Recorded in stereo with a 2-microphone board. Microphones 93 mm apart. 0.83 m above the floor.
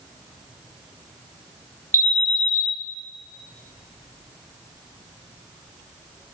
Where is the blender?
No blender in this recording.